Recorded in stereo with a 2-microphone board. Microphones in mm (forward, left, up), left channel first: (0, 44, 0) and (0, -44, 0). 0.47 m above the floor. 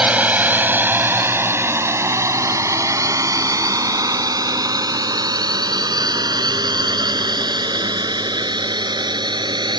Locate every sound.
0.0 s a drone: 15° right (ahead or behind); by 9.8 s 60° right (ahead or behind)